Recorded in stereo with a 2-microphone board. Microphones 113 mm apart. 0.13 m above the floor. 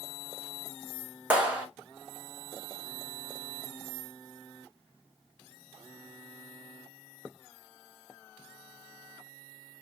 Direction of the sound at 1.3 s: 10° right (ahead or behind).